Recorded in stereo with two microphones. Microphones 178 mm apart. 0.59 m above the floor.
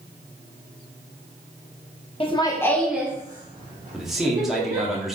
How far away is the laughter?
About 0.8 m.